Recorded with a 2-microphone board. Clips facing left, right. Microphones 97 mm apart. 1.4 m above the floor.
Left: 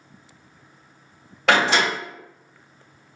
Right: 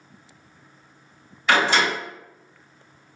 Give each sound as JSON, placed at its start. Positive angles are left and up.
{"t": 1.5, "sound": "a door slam", "side_deg": 80, "distance_m": 1.1}